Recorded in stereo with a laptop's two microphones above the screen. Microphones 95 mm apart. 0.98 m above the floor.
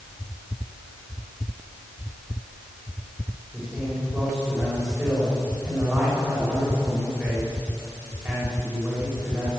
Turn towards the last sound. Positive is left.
turn(degrees=0)  # may be behind; listen again after turning